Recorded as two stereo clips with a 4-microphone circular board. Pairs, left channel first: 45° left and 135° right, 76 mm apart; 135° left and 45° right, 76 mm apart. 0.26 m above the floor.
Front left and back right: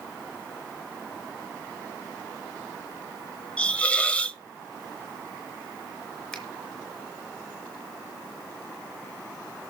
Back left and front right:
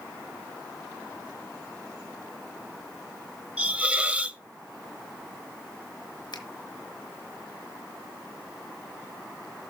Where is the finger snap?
130° left, 4 m.